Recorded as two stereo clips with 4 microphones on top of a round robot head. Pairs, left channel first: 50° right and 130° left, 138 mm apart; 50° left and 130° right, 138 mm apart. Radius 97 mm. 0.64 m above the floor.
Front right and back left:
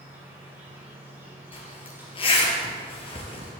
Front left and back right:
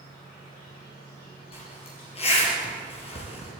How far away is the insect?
About 4.5 m.